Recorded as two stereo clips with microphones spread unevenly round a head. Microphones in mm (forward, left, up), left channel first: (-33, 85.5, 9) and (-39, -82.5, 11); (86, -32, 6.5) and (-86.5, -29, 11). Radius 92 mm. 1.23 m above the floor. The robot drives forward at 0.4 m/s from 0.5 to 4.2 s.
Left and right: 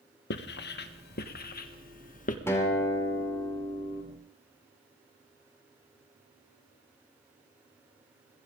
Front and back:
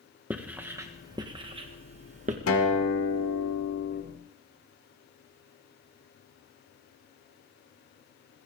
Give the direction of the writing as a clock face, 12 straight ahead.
9 o'clock.